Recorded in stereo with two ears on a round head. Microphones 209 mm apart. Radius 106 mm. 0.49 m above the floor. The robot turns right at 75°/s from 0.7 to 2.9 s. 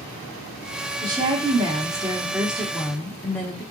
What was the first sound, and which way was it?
A woman speaking, 15° right (ahead or behind).